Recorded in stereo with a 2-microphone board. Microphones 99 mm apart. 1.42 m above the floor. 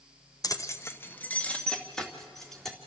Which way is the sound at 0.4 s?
35° left (ahead or behind).